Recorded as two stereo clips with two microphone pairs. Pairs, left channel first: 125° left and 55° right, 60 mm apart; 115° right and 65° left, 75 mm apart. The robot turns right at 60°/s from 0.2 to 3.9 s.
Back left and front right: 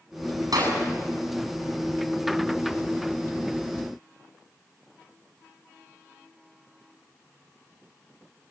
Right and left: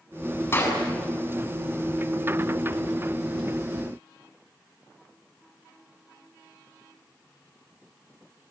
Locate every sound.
0.5 s a clap: 60° right, 8 m; by 0.8 s 45° right, 8 m